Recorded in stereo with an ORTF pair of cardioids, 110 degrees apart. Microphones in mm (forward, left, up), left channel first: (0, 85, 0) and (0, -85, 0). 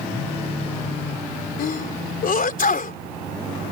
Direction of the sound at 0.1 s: 35° left.